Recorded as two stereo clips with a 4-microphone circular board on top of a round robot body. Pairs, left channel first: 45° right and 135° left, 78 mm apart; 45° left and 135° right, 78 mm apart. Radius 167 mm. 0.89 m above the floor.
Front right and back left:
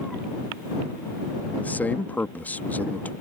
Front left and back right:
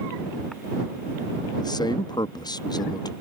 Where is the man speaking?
25° left.